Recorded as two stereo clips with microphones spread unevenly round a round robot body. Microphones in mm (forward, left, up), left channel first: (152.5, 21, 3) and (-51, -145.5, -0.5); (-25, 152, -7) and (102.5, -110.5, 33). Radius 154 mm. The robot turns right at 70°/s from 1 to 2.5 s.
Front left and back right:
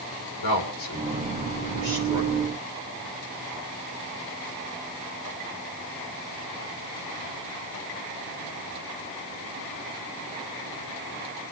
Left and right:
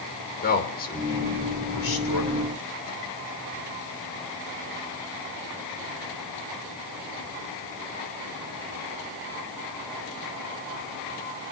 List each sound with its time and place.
0.4 s a man speaking: 55° left, 3 m; by 2.5 s 160° left, 3 m